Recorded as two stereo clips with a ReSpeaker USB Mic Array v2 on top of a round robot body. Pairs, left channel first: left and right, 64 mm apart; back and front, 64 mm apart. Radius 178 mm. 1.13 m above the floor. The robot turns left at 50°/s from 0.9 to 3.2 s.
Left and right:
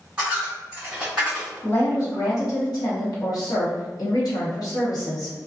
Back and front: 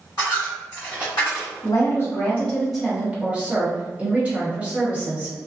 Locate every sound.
0.2 s a dropped coin: 155° right, 1.1 m; by 1.5 s 175° left, 1.1 m
1.6 s a woman speaking: 150° left, 1.3 m; by 5.3 s 70° left, 1.3 m